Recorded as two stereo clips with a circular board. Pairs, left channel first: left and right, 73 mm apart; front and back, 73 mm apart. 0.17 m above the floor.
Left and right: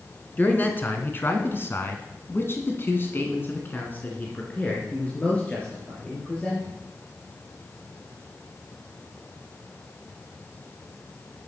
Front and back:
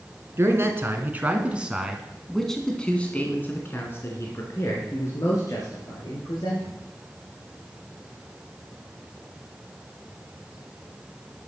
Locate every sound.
0.4 s a man speaking: 145° left, 2.5 m; by 6.7 s 15° left, 4 m